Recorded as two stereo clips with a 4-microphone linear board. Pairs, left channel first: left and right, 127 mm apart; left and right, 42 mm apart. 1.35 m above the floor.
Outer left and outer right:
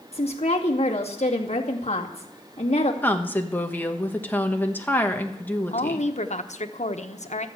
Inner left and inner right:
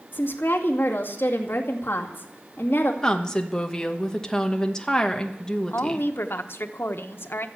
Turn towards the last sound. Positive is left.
turn(degrees=65)  # may be behind; listen again after turning